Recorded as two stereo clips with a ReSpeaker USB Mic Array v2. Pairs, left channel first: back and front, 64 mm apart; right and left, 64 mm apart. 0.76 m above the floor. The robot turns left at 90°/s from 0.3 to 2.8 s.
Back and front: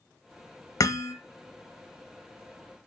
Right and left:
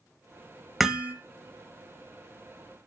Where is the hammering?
Straight behind, 0.9 m; by 1.1 s 145° left, 0.9 m.